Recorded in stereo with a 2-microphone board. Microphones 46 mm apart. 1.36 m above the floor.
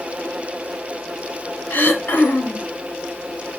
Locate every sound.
1.7 s throat clearing: 50° left (ahead or behind), 0.7 m